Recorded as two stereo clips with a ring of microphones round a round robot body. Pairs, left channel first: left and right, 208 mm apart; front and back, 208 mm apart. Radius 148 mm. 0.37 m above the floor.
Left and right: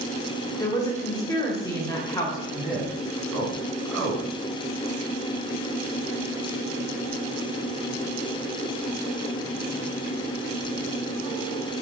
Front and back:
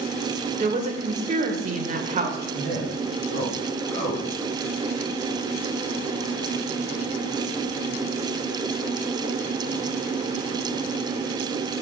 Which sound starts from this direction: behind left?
A woman speaking, at 0.6 s.